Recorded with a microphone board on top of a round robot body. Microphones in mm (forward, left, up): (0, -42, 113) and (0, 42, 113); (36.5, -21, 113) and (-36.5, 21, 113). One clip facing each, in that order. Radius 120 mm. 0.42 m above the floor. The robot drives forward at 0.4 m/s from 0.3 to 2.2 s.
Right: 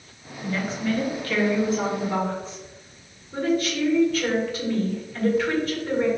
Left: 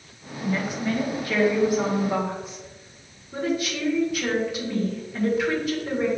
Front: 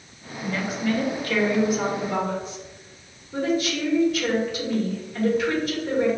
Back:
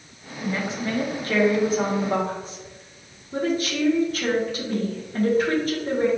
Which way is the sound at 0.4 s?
135° left.